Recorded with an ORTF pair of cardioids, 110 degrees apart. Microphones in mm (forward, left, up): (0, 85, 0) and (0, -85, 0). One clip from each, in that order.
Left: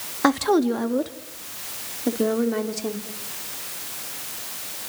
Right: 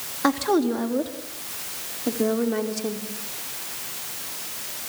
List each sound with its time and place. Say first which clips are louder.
0.2 s a woman speaking: left 2 dB; 40° left, 2.5 m; by 3.0 s 10° left, 4.5 m